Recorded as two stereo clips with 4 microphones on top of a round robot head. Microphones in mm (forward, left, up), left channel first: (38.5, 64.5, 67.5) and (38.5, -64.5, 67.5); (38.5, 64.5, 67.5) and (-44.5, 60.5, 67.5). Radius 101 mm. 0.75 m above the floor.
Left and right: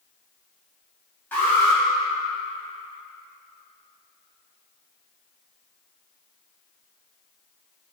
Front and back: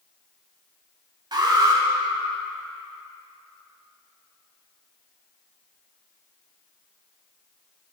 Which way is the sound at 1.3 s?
165° left.